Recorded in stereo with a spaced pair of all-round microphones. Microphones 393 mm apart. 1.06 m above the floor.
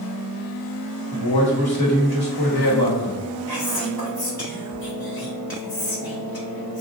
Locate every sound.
1.1 s a man speaking: 70° left (ahead or behind), 1.4 m
3.5 s whispering: 65° left (ahead or behind), 1.3 m